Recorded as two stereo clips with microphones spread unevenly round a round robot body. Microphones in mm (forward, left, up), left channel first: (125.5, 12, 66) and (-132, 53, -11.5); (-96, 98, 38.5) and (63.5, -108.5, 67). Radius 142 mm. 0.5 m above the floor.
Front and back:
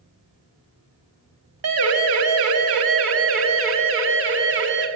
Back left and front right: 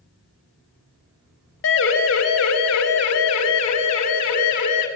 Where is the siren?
165° left, 4 m; by 4.9 s 130° left, 6 m.